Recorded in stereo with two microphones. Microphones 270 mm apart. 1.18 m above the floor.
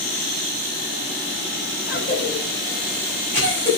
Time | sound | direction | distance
1.9 | a cough | 45° left (ahead or behind) | 6 m